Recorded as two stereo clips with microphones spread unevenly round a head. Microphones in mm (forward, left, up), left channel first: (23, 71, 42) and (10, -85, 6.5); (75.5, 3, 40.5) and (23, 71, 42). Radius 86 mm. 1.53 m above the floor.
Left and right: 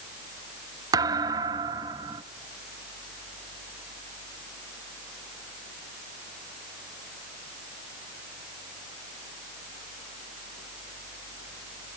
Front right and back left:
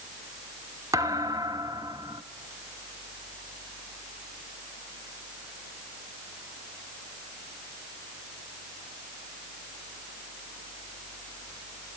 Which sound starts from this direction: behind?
A thud, at 0.9 s.